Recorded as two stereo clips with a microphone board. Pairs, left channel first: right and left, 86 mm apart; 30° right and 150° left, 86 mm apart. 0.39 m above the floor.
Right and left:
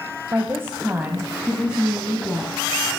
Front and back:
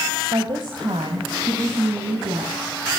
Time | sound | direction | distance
0.3 | a woman speaking | 145° left | 1.6 m